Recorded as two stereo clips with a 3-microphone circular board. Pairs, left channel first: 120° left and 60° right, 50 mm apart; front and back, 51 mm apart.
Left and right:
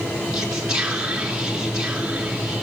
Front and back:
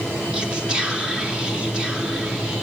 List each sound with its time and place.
0.3 s whispering: 125° right, 0.8 m